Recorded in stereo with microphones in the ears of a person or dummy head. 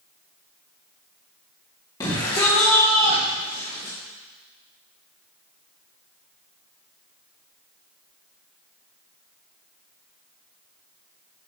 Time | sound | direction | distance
2.0 | a shout | 20° left (ahead or behind) | 2.5 m